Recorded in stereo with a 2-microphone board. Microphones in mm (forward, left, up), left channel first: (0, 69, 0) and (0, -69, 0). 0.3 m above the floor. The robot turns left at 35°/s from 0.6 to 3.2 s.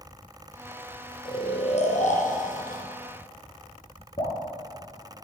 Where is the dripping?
50° left (ahead or behind), 4.5 m.